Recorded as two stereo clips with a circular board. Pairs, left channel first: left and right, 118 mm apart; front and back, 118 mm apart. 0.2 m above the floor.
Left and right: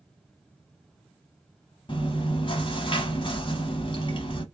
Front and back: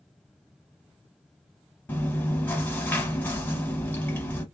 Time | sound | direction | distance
1.9 | chewing | 70° left | 0.9 m